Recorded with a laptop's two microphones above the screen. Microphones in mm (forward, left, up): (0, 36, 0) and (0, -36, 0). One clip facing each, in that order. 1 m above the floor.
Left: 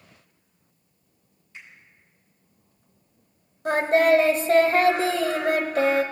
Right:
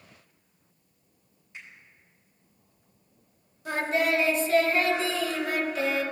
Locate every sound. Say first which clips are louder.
1.5 s a finger snap: left 1 dB; 20° right (ahead or behind), 4 m
3.6 s singing: left 8 dB; 45° left (ahead or behind), 0.9 m